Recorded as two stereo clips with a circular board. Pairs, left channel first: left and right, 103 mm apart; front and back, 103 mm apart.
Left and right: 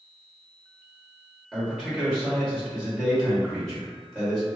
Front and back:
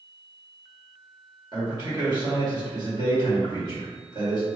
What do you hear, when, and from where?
1.5 s a man speaking: 175° left, 1.6 m